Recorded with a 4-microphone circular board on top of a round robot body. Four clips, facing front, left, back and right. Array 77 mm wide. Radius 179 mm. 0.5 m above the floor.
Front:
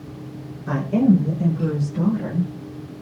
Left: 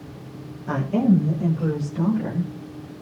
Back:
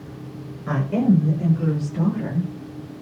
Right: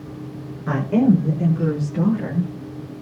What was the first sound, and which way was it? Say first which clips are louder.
A woman speaking: right 3 dB, front 2 dB; 115° right.